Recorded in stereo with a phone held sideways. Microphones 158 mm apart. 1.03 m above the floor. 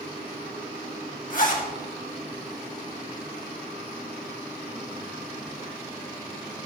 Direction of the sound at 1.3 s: 60° left (ahead or behind).